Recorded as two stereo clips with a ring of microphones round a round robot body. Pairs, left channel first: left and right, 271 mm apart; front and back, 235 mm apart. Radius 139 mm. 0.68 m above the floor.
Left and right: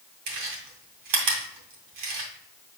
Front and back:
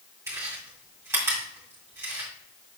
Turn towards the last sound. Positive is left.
turn(degrees=-100)